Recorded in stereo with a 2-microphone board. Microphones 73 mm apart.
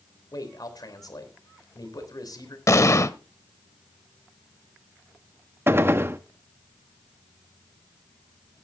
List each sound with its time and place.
0.3 s a man speaking: 60° left (ahead or behind), 3.5 m
2.7 s an explosion: 45° left (ahead or behind), 0.8 m
5.7 s a gunshot: 35° right (ahead or behind), 0.7 m